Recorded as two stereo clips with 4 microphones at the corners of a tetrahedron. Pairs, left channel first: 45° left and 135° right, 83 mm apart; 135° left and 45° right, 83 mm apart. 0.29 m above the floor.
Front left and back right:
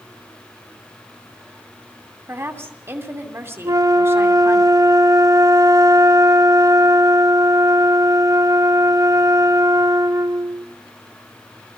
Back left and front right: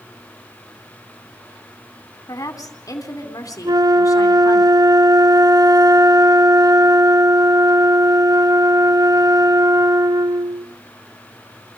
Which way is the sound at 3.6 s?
85° right.